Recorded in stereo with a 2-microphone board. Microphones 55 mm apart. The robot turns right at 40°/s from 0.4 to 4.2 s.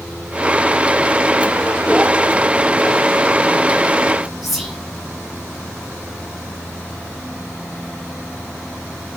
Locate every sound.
4.4 s whispering: centre (ahead or behind), 1.4 m